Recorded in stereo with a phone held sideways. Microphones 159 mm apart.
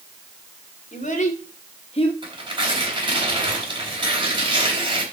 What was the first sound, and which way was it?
A child speaking, 50° left (ahead or behind).